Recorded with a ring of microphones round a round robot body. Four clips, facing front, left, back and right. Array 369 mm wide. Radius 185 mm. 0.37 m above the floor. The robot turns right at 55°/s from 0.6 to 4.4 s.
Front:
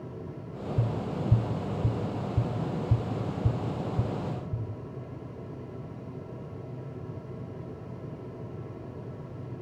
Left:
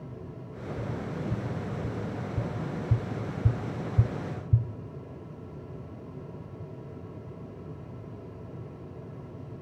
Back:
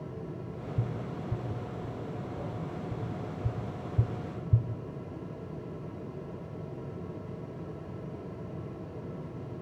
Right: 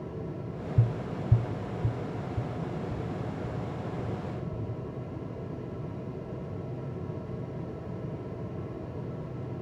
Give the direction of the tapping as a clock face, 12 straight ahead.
3 o'clock.